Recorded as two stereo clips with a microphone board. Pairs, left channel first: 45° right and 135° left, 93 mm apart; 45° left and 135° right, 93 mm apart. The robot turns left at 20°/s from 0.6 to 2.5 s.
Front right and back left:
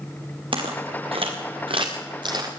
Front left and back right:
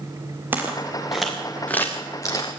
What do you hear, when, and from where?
0.5 s footsteps: 155° left, 4.5 m; by 2.5 s 90° left, 3.5 m